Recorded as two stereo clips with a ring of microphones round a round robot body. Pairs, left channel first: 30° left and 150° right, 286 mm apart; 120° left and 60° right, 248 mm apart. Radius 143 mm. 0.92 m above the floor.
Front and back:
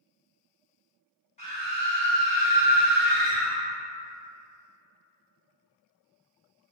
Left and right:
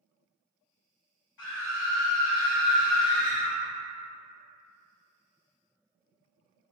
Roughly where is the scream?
Left.